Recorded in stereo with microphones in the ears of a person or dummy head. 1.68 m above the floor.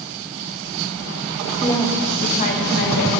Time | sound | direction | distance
1.6 | a woman speaking | 10° left (ahead or behind) | 1.0 m